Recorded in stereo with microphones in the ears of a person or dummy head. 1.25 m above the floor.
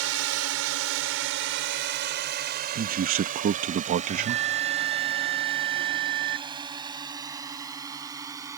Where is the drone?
75° right (ahead or behind); by 8.6 s 20° right (ahead or behind).